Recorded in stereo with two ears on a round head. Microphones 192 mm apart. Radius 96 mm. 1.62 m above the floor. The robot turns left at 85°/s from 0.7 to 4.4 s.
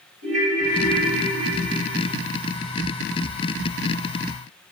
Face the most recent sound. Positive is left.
turn(degrees=5)